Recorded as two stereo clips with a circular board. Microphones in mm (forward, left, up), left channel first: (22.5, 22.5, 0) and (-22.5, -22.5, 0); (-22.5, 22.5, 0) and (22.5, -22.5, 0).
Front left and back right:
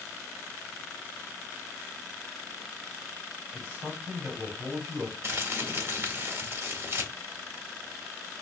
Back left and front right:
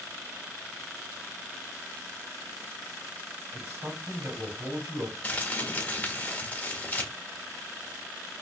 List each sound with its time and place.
3.5 s a man speaking: 85° right, 2 m
5.2 s crumpling: 170° right, 1.3 m